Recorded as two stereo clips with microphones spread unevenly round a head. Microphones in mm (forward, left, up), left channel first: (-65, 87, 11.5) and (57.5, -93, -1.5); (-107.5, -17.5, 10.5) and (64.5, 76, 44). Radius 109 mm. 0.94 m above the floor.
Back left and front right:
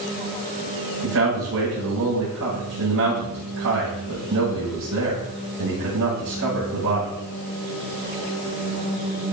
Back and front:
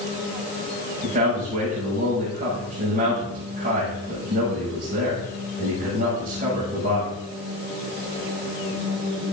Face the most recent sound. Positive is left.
turn(degrees=-30)